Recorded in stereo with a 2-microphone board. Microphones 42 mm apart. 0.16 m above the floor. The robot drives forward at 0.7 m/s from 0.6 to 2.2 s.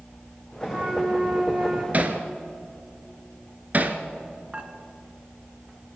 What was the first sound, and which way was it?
A flute, 20° right (ahead or behind).